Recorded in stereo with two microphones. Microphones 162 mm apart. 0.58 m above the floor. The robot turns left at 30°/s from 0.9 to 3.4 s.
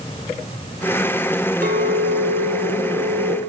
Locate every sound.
1.6 s a clink: 75° right, 1.0 m; by 3.4 s 125° right, 1.0 m